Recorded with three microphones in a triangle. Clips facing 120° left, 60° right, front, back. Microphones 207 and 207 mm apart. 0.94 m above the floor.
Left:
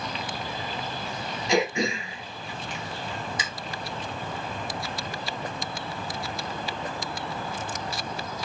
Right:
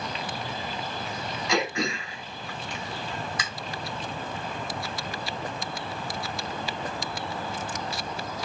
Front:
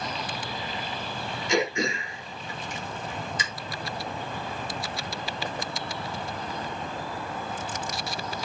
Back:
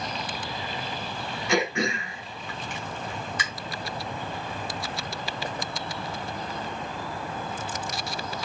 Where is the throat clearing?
175° right, 1.6 m.